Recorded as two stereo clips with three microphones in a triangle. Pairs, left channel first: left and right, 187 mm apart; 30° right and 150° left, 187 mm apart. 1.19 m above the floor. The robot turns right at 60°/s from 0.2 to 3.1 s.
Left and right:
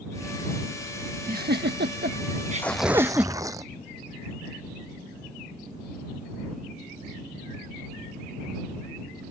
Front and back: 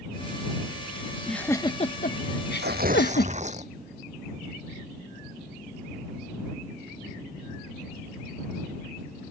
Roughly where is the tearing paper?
Behind.